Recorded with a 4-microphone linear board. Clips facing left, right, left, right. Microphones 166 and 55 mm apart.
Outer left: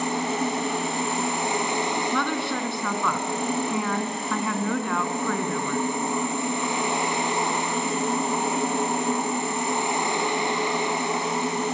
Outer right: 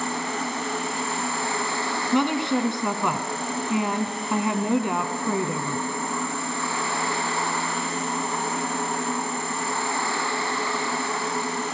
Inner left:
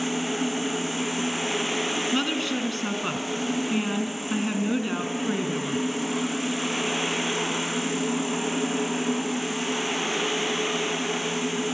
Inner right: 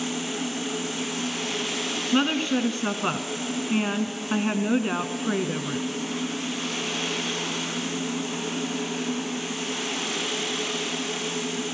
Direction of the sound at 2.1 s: 20° right (ahead or behind).